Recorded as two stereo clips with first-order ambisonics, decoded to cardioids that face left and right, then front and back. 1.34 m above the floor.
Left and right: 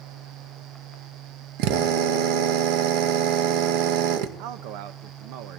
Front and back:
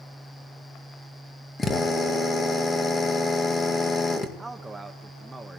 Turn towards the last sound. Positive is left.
turn(degrees=-100)